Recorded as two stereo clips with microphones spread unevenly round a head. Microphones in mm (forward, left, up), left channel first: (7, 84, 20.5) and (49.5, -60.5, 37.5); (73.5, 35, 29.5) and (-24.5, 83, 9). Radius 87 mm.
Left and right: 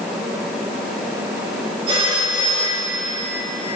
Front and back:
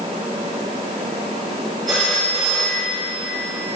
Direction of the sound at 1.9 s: 135° right.